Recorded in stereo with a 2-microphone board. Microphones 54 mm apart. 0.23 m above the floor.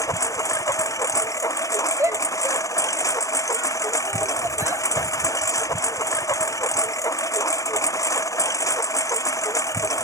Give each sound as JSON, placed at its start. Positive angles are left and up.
{"t": 0.0, "sound": "a lawn mower", "side_deg": 85}
{"t": 2.0, "sound": "a shout", "side_deg": -55}